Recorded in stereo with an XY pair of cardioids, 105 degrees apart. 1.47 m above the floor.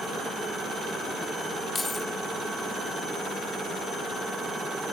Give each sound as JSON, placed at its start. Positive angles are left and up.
{"t": 1.8, "sound": "keys jangling", "azimuth_deg": 30, "distance_m": 3.5}